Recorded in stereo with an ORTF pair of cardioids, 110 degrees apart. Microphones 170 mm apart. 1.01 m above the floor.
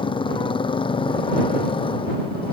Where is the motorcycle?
30° left.